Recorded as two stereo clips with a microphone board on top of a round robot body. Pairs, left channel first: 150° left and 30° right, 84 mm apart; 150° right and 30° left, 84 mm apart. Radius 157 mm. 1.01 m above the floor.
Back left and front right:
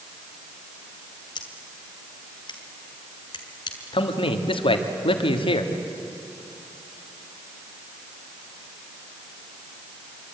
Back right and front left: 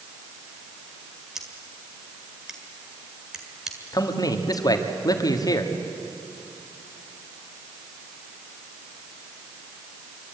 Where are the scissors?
115° left, 1.9 m.